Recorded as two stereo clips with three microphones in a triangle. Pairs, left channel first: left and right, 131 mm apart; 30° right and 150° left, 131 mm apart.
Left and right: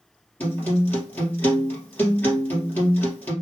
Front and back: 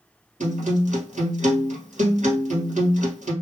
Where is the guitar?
165° left, 2.5 m.